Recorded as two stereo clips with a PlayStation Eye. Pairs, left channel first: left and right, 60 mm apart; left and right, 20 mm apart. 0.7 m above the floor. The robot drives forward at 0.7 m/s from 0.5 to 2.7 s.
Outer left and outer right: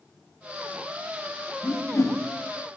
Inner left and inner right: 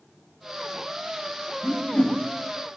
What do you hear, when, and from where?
1.6 s a whoosh: 50° left (ahead or behind), 1.8 m; by 2.2 s 55° left (ahead or behind), 1.7 m